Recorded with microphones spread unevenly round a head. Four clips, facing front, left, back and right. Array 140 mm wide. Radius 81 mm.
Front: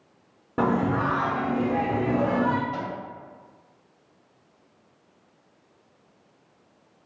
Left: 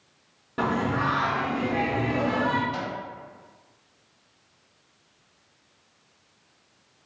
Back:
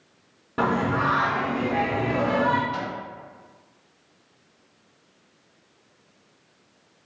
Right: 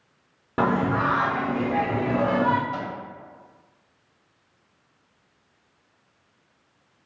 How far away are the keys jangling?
I don't hear keys jangling.